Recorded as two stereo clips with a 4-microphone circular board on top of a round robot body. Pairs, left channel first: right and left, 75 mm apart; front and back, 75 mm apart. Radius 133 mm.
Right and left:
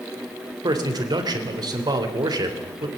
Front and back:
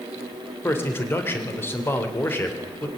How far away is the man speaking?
About 3 m.